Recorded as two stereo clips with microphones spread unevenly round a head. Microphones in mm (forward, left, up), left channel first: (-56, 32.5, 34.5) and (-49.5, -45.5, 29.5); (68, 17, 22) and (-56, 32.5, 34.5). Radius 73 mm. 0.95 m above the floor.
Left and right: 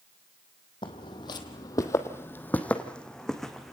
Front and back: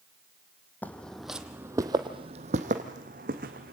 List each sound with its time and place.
0.8 s footsteps: 70° left, 1.8 m; by 3.7 s straight behind, 3 m